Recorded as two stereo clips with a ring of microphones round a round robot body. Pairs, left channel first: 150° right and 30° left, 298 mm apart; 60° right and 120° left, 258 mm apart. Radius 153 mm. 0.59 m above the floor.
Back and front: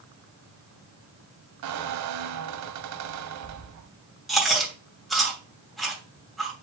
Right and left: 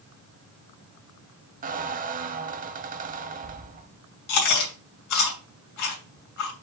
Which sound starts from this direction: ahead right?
Chewing, at 4.3 s.